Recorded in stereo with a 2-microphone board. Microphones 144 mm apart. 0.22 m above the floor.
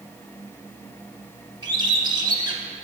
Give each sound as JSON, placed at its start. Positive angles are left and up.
{"t": 1.6, "sound": "a bird", "side_deg": -30, "distance_m": 0.7}